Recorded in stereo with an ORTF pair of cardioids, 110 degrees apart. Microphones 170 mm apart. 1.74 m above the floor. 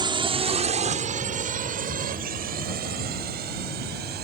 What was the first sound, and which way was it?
A drone, 30° right.